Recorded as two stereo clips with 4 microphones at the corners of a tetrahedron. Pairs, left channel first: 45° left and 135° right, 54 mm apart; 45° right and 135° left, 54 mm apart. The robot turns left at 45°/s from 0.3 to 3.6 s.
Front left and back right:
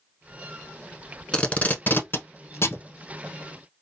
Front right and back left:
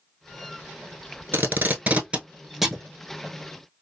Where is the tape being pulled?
110° left, 0.7 m; by 2.8 s 40° left, 0.7 m.